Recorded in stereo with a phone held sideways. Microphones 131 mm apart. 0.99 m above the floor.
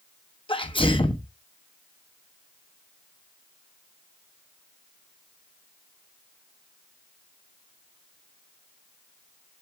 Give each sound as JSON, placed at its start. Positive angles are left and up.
{"t": 0.5, "sound": "a sneeze", "side_deg": 40, "distance_m": 1.1}